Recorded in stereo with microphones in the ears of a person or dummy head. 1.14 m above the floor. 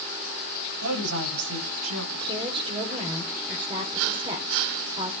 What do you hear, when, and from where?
0.8 s a woman speaking: 85° right, 9.5 m
2.1 s a woman speaking: 25° right (ahead or behind), 3 m